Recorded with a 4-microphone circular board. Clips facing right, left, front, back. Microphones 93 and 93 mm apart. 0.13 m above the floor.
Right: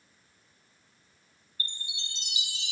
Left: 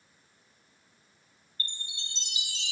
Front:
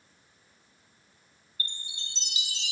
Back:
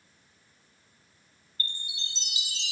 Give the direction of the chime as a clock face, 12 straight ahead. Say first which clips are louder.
Right 1 dB, back 2 dB; 7 o'clock.